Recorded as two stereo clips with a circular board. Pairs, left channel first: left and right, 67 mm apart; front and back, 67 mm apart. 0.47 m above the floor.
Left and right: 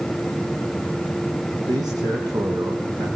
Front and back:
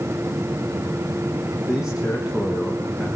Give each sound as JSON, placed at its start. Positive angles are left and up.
{"t": 1.7, "sound": "a man speaking", "azimuth_deg": -100, "distance_m": 5.0}